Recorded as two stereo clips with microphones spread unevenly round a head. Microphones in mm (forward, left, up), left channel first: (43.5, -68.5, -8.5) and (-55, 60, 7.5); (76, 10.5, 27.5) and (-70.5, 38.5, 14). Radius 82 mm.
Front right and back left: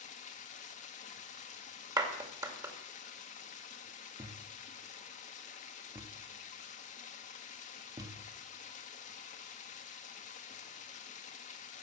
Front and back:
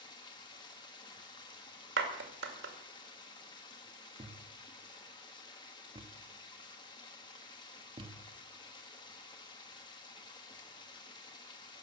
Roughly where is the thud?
Behind left.